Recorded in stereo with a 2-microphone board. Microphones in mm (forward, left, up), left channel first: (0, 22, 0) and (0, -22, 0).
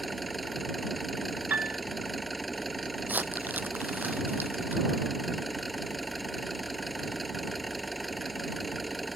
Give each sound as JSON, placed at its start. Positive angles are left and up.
{"t": 0.0, "sound": "an engine running", "side_deg": 0}
{"t": 1.5, "sound": "a piano", "side_deg": -40}
{"t": 3.1, "sound": "crumpling", "side_deg": -40}